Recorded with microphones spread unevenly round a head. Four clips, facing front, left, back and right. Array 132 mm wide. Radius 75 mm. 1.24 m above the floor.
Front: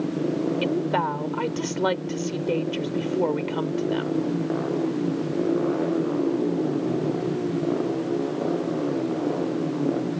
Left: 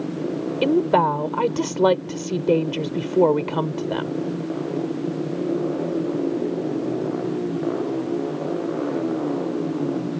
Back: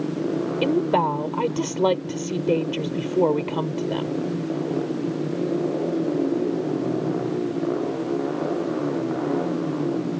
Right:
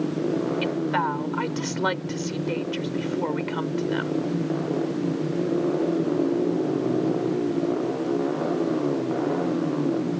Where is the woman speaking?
110° left.